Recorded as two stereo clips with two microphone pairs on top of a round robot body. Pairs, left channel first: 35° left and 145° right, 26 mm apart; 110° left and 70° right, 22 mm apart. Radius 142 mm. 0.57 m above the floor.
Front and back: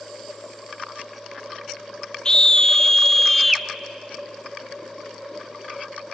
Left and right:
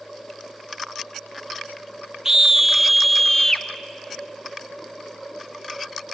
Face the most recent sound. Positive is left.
turn(degrees=145)